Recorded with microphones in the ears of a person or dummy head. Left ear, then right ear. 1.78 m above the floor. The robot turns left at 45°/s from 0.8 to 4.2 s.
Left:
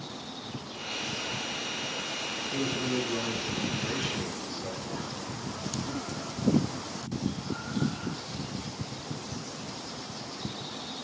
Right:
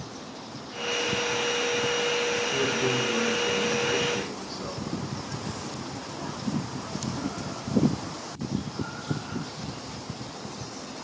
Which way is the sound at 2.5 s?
50° right.